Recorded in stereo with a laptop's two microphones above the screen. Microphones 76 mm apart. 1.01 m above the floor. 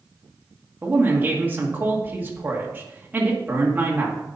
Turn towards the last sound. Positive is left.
turn(degrees=-25)  # may be behind; listen again after turning